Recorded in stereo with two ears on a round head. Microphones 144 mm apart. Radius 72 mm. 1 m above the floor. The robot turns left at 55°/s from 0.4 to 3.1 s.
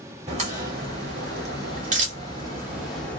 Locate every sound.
0.3 s a crack: 40° right (ahead or behind), 2.5 m; by 3.2 s 10° left (ahead or behind), 2.5 m